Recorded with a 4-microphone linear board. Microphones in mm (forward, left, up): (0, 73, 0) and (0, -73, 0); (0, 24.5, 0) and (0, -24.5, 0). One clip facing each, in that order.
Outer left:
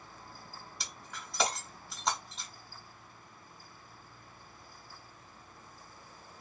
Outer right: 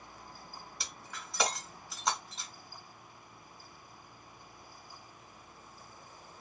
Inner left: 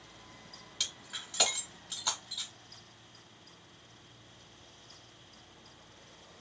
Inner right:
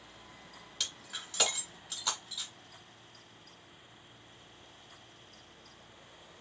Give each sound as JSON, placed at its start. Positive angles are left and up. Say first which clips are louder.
{"t": 0.8, "sound": "breaking glass", "louder": "outer left 1 dB, even", "side_deg": 0, "distance_m": 1.2}